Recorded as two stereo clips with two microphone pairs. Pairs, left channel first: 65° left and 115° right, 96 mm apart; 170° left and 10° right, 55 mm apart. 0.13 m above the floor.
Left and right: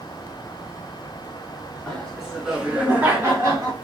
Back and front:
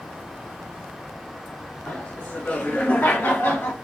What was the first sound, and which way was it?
Laughter, 130° left.